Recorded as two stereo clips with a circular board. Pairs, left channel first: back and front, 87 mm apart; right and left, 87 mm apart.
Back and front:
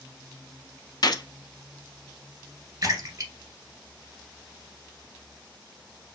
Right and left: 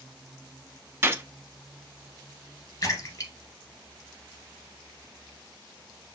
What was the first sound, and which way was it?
A gunshot, 150° left.